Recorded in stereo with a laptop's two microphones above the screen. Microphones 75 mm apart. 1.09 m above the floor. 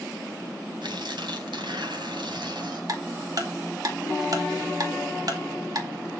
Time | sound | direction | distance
0.8 | tearing paper | 80° right | 3 m
2.9 | ticking | 55° right (ahead or behind) | 2.5 m